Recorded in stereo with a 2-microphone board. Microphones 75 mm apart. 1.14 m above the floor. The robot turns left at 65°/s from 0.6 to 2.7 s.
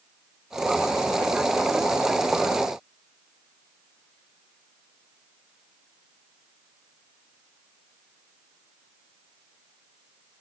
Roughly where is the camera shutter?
I don't hear a camera shutter.